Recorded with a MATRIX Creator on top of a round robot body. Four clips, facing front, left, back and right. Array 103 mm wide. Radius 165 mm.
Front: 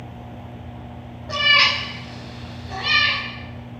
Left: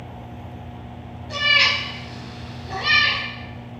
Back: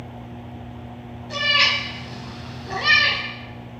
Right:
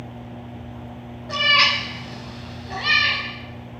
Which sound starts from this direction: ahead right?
A cat meowing, at 1.3 s.